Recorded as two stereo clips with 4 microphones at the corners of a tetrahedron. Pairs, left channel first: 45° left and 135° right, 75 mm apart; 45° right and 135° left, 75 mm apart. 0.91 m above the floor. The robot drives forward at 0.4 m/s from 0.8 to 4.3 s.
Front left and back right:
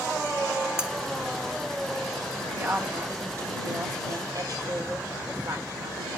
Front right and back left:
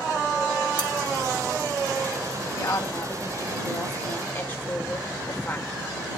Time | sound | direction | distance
0.8 | cutlery clinking | 55° right | 2.5 m
2.6 | a woman speaking | 80° right | 1.5 m